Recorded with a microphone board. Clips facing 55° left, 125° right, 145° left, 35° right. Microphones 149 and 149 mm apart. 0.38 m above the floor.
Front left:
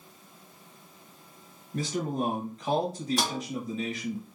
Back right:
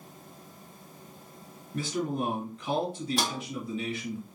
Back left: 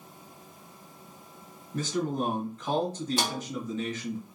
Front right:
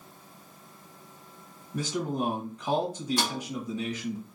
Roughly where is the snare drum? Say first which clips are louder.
Front left 1 dB, even; behind left.